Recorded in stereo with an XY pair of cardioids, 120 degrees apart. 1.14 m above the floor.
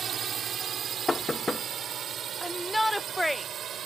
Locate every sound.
0.0 s a drone: 50° right; by 3.9 s 55° right
1.1 s knocking: 15° left
2.4 s a shout: straight ahead